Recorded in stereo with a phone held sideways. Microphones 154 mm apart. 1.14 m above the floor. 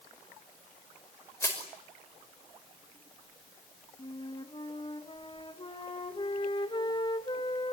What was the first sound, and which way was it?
Crushing, 15° left (ahead or behind).